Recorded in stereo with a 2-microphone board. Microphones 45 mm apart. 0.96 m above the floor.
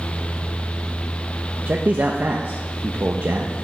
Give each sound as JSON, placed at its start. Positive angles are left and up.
{"t": 1.7, "sound": "a man speaking", "side_deg": -55, "distance_m": 0.9}